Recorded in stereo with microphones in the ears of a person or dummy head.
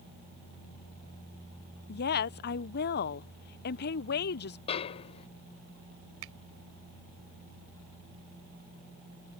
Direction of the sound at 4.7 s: 35° left (ahead or behind).